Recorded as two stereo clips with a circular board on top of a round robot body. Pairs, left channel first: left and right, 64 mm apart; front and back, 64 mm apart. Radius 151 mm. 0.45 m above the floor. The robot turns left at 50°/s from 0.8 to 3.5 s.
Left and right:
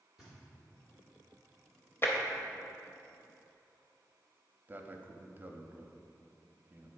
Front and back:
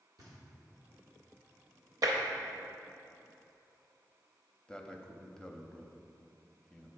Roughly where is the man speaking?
Ahead right.